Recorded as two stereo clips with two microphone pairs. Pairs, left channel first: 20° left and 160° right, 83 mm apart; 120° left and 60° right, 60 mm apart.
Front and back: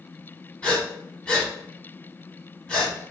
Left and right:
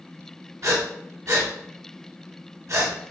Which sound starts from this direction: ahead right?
Breathing, at 0.6 s.